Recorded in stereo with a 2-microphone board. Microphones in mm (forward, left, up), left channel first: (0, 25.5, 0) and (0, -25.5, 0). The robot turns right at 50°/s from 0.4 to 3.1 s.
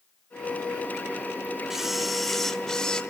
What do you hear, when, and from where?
1.7 s a camera shutter: 5° right (ahead or behind), 1.5 m; by 3.0 s 15° left (ahead or behind), 1.5 m